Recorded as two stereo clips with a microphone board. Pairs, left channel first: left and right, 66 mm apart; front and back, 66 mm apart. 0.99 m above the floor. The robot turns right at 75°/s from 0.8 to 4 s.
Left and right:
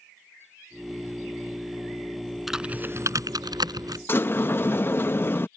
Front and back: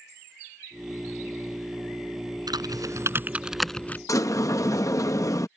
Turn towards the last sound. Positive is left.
turn(degrees=30)